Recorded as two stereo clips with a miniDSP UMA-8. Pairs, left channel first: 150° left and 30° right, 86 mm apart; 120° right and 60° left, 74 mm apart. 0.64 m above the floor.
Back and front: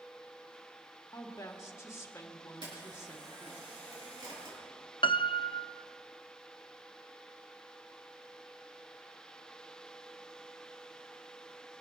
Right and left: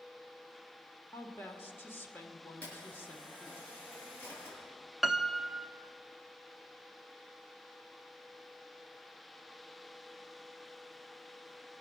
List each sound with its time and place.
1.1 s a woman speaking: 165° right, 1.6 m
2.6 s a camera shutter: 55° right, 7 m
5.0 s a piano: 145° left, 0.6 m